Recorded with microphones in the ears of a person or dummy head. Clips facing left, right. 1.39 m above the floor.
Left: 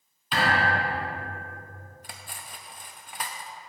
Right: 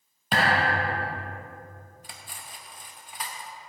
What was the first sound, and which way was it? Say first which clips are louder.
A thud: right 1 dB; 40° right (ahead or behind).